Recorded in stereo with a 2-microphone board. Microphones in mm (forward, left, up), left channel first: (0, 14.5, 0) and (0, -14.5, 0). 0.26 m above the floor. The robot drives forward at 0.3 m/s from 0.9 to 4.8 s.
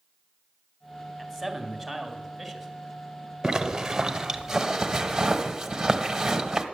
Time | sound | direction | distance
1.2 | a man speaking | 5° left (ahead or behind) | 2 m
3.4 | a zipper | 15° right (ahead or behind) | 0.9 m